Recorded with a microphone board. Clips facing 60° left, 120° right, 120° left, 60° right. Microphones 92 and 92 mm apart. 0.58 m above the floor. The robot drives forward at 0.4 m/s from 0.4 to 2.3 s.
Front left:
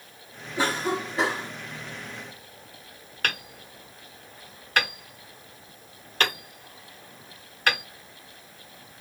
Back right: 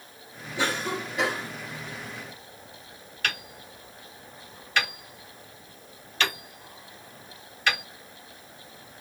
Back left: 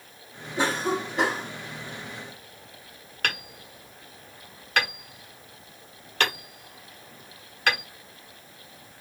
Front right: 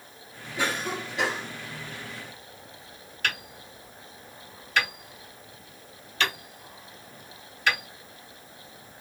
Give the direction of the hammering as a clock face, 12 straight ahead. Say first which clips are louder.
Front left 1 dB, back left 1 dB; 9 o'clock.